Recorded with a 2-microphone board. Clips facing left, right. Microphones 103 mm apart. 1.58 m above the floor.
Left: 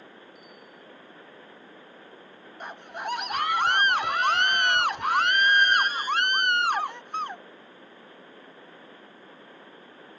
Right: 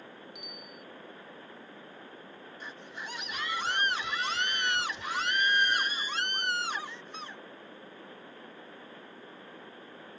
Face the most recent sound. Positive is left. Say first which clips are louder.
# left 10 dB
turn(degrees=60)  # may be behind; listen again after turning